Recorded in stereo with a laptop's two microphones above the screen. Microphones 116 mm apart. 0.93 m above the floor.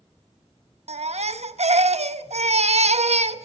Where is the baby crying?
70° right (ahead or behind), 0.9 m.